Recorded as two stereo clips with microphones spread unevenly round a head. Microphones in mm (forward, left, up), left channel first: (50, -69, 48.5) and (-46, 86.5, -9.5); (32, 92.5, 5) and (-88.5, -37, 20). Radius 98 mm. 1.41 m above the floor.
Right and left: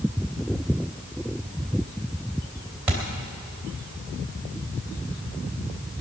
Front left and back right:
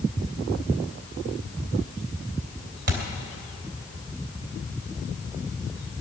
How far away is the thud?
About 2.5 m.